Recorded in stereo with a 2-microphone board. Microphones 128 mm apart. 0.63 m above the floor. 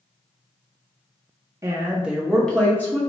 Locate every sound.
1.6 s a woman speaking: 25° right (ahead or behind), 0.6 m; by 3.0 s 20° left (ahead or behind), 1.0 m